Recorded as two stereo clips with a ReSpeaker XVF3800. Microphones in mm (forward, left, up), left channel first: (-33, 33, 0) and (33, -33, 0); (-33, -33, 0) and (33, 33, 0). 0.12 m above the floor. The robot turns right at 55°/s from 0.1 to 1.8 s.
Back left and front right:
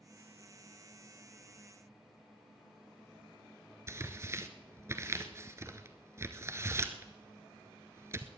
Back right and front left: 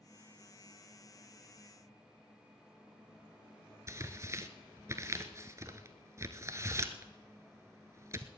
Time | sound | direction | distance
3.9 | tearing paper | straight ahead | 1.0 m